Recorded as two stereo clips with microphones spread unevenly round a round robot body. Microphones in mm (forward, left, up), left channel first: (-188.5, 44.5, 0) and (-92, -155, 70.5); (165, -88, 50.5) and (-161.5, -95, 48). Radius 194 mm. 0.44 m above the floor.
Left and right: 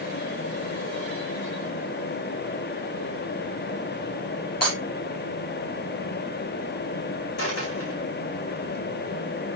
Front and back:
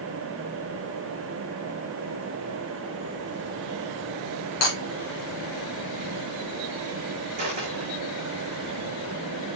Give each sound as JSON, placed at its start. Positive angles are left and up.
{"t": 4.6, "sound": "breaking glass", "azimuth_deg": 55, "distance_m": 3.5}
{"t": 7.4, "sound": "a dropped coin", "azimuth_deg": 110, "distance_m": 6.5}